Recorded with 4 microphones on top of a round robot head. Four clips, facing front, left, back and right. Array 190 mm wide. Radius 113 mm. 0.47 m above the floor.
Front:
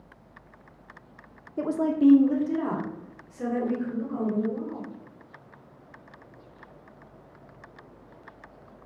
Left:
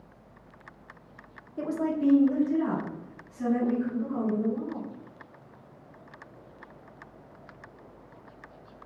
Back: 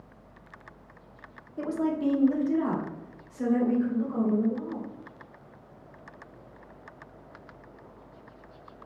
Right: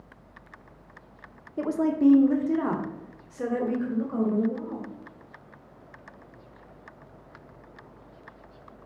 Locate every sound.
1.6 s a woman speaking: 35° right, 0.9 m; by 4.8 s 90° right, 2.5 m